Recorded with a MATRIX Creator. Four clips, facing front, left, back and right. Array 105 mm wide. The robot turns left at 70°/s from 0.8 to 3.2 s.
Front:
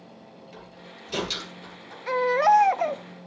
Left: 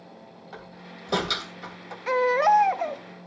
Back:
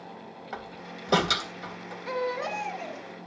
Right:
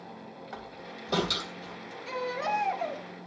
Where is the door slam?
170° right, 3.5 m; by 2.0 s 110° left, 3.5 m.